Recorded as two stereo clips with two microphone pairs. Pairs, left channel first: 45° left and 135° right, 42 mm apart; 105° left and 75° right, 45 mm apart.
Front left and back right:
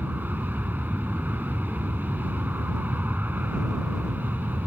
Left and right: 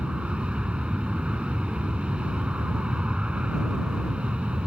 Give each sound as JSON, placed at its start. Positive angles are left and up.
{"t": 0.0, "sound": "an aircraft", "azimuth_deg": -130}